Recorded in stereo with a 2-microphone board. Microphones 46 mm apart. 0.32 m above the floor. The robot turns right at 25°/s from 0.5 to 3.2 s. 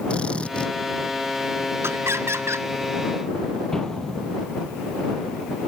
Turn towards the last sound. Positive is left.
turn(degrees=10)  # may be behind; listen again after turning